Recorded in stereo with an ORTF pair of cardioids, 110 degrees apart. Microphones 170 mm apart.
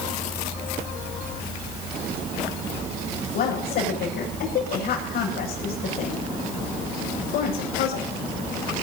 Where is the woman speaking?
65° left, 7.5 m.